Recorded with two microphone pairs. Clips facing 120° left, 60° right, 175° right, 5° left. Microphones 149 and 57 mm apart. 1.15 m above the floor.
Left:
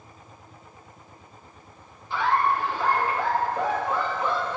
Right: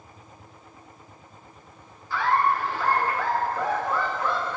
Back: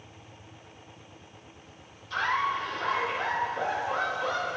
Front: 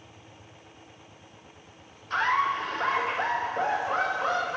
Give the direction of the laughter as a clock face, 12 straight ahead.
10 o'clock.